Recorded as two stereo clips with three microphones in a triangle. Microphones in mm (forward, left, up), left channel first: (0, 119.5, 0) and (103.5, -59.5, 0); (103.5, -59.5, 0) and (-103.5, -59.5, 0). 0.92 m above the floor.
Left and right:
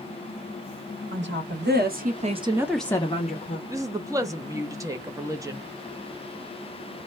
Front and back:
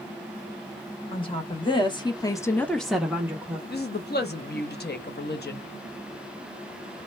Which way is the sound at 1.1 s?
65° right.